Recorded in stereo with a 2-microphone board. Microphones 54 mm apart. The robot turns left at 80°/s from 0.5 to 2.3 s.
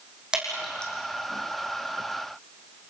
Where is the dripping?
15° right (ahead or behind), 6 m; by 0.9 s 20° left (ahead or behind), 6 m.